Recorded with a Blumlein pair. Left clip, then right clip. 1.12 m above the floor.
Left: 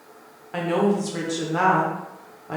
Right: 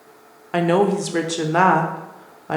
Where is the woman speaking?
65° right, 0.5 m.